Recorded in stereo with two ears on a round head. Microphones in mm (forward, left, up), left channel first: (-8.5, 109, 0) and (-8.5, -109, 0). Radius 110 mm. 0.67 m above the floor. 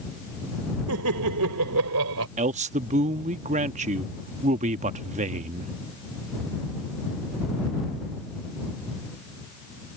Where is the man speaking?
30° right (ahead or behind).